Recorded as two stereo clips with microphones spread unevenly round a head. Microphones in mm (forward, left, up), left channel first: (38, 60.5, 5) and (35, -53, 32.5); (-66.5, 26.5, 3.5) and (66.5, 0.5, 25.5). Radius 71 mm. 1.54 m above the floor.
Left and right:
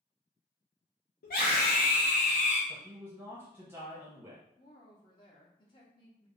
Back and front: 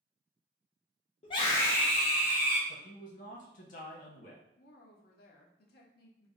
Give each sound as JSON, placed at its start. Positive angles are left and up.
{"t": 1.2, "sound": "a scream", "azimuth_deg": 115, "distance_m": 0.6}
{"t": 2.7, "sound": "a man speaking", "azimuth_deg": -155, "distance_m": 0.7}
{"t": 4.6, "sound": "a woman speaking", "azimuth_deg": 150, "distance_m": 0.7}